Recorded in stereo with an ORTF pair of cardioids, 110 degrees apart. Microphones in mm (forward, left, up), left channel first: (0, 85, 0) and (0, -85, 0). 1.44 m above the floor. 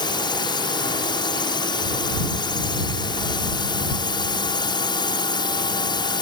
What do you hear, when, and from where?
0.0 s a drone: 30° left